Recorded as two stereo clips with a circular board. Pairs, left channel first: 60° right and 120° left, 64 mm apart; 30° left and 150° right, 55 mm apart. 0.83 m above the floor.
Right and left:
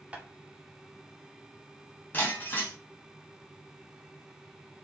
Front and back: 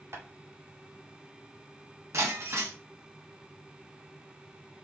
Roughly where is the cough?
I don't hear a cough.